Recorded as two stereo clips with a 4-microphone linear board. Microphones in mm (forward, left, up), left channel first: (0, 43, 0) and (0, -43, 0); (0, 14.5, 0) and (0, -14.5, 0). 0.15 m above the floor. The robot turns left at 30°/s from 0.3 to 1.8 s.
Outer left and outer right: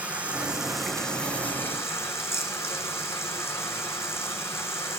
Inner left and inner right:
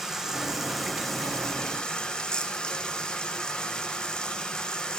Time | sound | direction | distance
0.0 | running water | 165° right | 1.4 m